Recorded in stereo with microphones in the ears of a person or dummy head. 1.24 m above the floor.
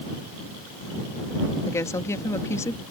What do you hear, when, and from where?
1.7 s a woman speaking: 15° left (ahead or behind)